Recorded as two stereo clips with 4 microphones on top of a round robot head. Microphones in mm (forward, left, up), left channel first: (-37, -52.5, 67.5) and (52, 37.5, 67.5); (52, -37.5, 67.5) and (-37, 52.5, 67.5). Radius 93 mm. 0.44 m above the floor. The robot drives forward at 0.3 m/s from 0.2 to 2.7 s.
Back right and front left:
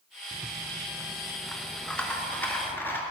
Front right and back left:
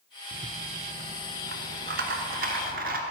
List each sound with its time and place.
0.3 s a rattle: 115° left, 0.7 m; by 3.0 s 150° left, 1.2 m